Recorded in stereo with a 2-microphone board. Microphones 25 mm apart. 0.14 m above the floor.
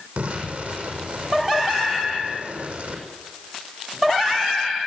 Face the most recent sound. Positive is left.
turn(degrees=-70)  # may be behind; listen again after turning